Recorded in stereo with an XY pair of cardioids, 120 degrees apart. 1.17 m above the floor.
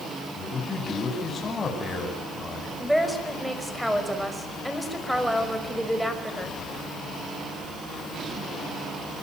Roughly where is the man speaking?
Ahead left.